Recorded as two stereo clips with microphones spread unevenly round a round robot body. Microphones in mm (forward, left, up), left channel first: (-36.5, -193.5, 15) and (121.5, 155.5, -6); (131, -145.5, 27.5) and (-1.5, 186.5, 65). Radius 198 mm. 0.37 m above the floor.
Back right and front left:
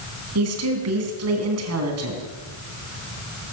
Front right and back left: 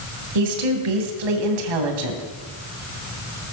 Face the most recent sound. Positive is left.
turn(degrees=120)